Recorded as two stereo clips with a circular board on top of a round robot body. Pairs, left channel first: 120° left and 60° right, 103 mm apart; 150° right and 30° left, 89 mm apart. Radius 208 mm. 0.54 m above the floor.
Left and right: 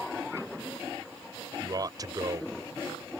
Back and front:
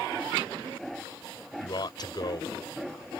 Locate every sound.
1.6 s a man speaking: 110° right